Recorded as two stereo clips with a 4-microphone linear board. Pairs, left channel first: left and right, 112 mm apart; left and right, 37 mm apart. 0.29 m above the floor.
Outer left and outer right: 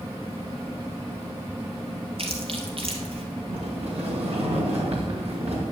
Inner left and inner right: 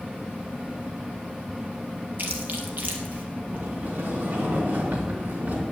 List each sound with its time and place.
2.2 s chewing: 55° right (ahead or behind), 2 m
3.5 s a sliding door: 65° right (ahead or behind), 3 m